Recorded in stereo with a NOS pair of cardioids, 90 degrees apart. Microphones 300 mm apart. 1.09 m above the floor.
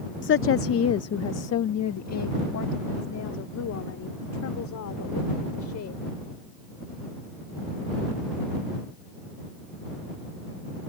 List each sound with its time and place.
0.2 s a woman speaking: 35° left; by 6.0 s 60° left